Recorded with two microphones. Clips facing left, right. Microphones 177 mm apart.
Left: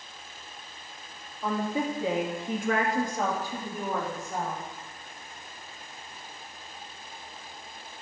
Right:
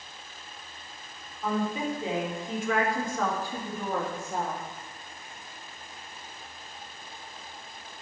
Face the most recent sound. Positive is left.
turn(degrees=-5)  # may be behind; listen again after turning